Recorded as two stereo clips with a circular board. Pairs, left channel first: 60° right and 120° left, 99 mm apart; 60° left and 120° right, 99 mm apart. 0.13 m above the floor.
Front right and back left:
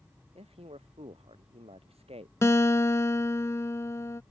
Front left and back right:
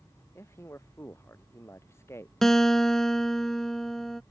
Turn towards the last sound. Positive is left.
turn(degrees=-25)